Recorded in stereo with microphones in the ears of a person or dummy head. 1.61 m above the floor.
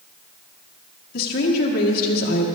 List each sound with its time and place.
1.1 s a woman speaking: 60° left (ahead or behind), 1.6 m